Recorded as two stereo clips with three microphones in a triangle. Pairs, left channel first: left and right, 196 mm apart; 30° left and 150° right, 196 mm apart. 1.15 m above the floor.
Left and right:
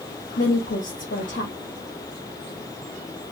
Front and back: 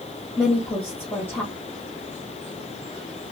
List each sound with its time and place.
0.4 s a woman speaking: 110° left, 0.8 m